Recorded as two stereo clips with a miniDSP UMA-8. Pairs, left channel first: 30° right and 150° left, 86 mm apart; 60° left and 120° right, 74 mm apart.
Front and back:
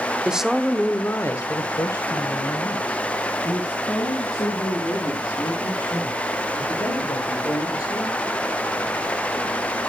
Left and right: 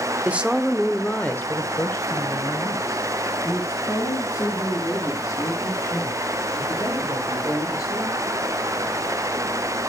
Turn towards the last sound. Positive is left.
turn(degrees=15)